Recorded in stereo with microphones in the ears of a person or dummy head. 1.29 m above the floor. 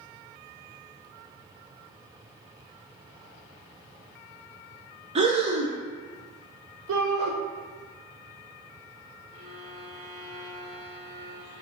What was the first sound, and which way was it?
Breathing, 30° right (ahead or behind).